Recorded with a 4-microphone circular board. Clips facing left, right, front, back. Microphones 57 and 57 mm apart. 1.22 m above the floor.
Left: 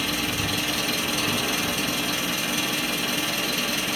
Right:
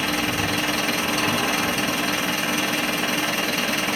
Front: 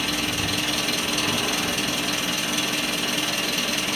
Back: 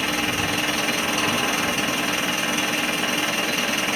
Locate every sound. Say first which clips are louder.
0.0 s an engine running: right 4 dB, back 3 dB; 125° right, 1.0 m